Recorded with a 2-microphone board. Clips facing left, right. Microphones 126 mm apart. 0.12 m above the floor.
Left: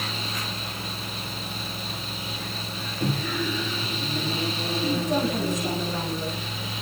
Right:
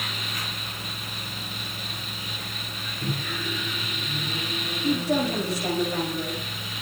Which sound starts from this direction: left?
A microwave, at 3.0 s.